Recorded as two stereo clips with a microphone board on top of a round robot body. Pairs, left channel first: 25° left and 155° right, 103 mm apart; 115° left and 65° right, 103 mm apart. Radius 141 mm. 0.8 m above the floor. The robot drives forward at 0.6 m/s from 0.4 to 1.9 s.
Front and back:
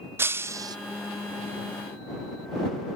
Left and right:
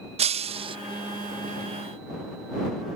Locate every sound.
0.2 s breaking glass: 90° right; by 0.8 s 105° right